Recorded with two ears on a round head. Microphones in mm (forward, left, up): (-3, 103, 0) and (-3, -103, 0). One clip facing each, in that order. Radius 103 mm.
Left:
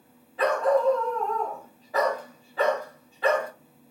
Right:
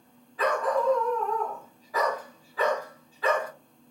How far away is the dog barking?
About 1.0 m.